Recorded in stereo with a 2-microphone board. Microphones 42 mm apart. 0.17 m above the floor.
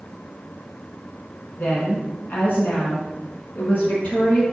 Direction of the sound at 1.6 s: 45° left (ahead or behind).